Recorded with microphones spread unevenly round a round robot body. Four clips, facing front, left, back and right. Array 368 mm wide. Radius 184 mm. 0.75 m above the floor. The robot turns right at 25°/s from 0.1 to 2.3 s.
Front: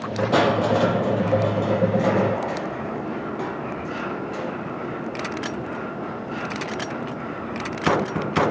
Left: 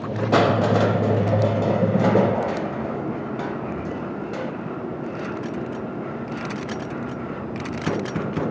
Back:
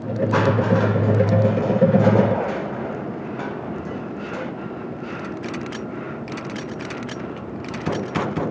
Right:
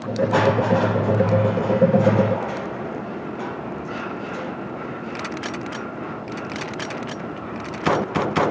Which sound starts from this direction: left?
Crushing, at 0.3 s.